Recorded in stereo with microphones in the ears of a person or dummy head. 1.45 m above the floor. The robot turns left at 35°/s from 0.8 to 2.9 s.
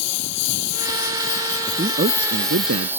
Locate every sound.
0.0 s a lawn mower: 70° left; by 3.0 s 5° right
1.7 s a man speaking: 25° right; by 2.9 s 65° right